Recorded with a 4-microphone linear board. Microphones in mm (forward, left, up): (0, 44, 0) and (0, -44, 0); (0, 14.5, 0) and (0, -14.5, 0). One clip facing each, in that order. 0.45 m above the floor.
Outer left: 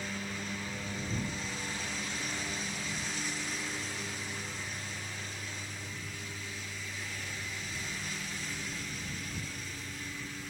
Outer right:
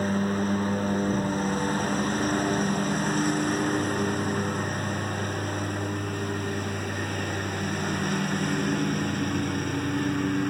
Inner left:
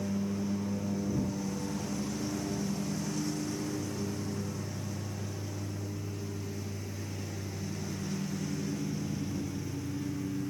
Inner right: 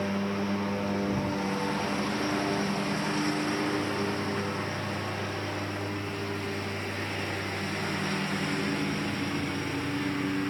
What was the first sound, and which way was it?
A lawn mower, 45° right (ahead or behind).